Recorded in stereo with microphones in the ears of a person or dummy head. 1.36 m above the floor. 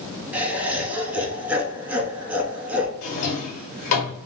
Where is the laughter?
10° right (ahead or behind), 0.6 m.